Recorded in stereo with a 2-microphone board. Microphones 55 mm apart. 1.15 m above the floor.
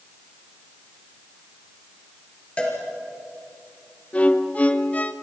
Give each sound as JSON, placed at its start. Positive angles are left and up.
{"t": 2.6, "sound": "a cowbell", "side_deg": 25, "distance_m": 4.0}
{"t": 4.1, "sound": "a violin", "side_deg": 25, "distance_m": 0.8}